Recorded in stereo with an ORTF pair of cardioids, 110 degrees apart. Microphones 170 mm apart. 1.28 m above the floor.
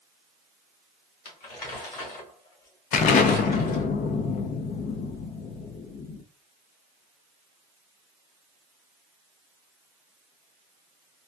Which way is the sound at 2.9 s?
50° left.